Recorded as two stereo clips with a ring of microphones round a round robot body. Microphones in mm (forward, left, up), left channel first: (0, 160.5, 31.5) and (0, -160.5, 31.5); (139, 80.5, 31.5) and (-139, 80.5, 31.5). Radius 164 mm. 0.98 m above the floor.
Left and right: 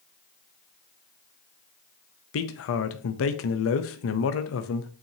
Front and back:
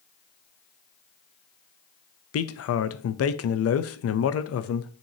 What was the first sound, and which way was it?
A man speaking, 40° left.